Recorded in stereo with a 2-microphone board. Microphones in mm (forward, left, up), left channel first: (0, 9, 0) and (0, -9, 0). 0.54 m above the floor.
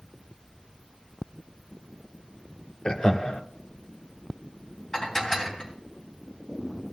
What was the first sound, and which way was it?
Laughter, 45° left (ahead or behind).